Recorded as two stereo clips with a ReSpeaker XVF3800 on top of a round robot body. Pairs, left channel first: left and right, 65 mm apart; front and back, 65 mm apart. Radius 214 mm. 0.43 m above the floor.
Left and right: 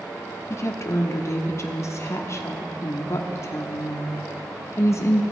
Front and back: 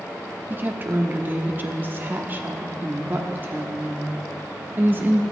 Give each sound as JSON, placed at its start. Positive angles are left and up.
{"t": 0.5, "sound": "a woman speaking", "azimuth_deg": 125, "distance_m": 1.3}